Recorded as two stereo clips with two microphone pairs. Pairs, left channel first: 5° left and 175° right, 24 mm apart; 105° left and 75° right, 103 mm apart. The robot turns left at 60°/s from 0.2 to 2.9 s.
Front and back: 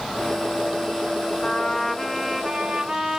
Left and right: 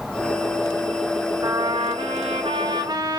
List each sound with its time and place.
1.4 s a trumpet: 30° right, 0.9 m; by 3.2 s 115° right, 0.9 m